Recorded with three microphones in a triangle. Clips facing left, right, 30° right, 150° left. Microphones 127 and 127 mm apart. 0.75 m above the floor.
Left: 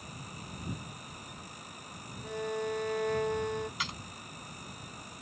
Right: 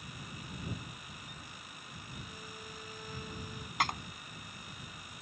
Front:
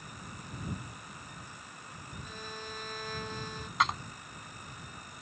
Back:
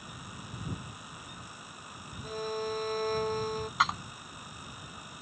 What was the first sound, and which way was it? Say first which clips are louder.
A violin: left 16 dB, back 13 dB; 100° left.